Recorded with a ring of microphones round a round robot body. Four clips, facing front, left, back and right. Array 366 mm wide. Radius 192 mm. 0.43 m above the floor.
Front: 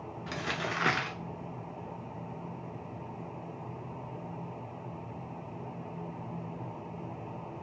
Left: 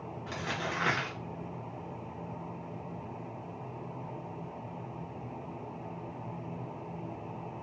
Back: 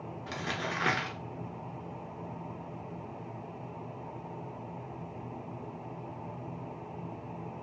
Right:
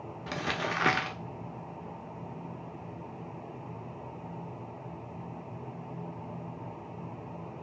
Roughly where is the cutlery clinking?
I don't hear cutlery clinking.